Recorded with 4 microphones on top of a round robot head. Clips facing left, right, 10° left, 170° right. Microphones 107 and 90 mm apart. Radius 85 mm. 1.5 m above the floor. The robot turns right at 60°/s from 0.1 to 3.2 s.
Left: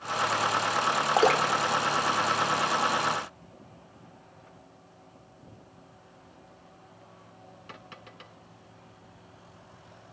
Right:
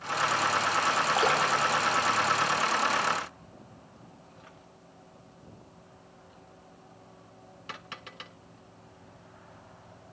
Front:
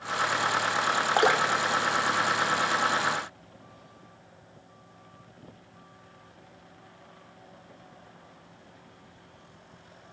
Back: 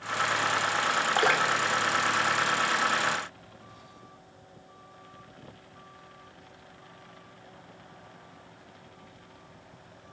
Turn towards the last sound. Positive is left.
turn(degrees=-170)